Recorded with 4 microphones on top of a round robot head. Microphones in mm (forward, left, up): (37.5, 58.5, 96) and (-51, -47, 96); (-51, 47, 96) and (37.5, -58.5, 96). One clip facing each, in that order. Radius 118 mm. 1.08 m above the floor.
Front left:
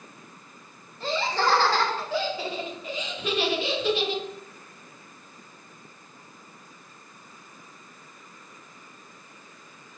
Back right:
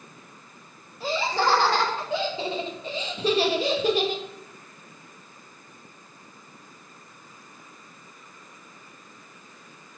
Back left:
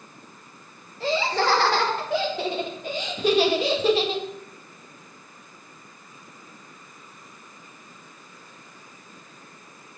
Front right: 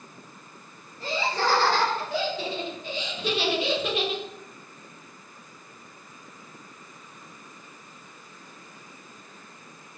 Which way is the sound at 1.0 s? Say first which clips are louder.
Back right 1 dB, back left 4 dB; 150° left.